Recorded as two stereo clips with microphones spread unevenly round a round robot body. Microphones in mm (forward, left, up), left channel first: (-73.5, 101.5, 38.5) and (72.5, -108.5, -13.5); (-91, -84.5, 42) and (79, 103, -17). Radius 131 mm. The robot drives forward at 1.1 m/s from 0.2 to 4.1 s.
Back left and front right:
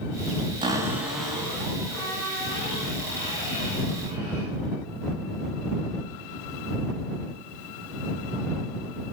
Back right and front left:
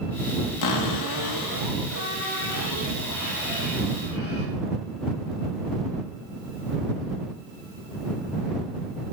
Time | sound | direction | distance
0.6 | a cupboard door | 130° right | 1.3 m